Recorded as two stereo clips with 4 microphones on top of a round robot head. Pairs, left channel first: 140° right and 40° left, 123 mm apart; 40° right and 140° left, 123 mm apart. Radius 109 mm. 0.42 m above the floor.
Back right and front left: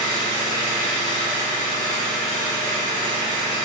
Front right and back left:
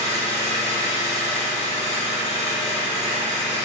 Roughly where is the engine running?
Right.